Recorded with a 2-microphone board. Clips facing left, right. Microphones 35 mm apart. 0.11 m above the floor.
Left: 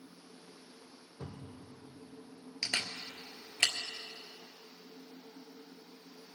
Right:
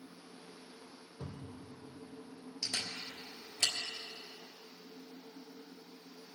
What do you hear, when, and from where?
1.2 s a cupboard door: centre (ahead or behind), 2.5 m
2.6 s a camera shutter: 55° left (ahead or behind), 1.2 m